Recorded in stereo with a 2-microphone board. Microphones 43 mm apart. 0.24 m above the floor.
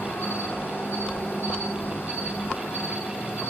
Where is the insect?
55° left (ahead or behind), 1.1 m.